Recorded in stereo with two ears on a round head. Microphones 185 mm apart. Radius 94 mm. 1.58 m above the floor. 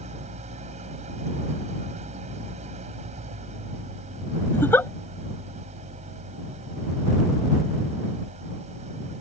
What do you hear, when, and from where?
0.0 s an engine running: 35° right (ahead or behind)
4.5 s a giggle: 10° left (ahead or behind)